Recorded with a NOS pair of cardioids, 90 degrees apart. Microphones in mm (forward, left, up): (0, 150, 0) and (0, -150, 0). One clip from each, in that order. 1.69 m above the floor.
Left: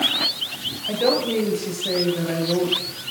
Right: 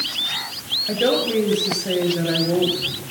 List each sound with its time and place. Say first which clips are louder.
0.9 s a woman speaking: even; 10° right, 8 m